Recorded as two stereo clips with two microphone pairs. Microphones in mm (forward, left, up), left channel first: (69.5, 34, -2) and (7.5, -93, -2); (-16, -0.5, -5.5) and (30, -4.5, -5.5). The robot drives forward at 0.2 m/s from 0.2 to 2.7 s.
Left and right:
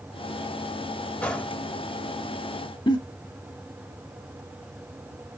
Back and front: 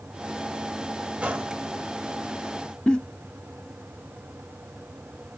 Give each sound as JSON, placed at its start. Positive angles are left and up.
{"t": 1.2, "sound": "a gunshot", "azimuth_deg": -5, "distance_m": 1.0}
{"t": 2.9, "sound": "a giggle", "azimuth_deg": 110, "distance_m": 0.7}